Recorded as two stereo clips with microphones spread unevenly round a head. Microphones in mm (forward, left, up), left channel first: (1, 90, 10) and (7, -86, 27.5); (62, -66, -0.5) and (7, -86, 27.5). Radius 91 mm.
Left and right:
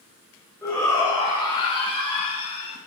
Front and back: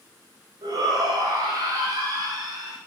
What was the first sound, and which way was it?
A shout, 170° left.